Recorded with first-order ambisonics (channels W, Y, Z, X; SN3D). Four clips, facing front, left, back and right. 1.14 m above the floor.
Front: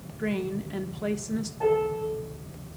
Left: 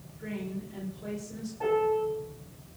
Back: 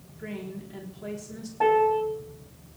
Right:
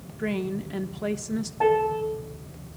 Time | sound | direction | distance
0.2 | a woman speaking | 55° right | 1.1 m
1.6 | a piano | 130° right | 1.9 m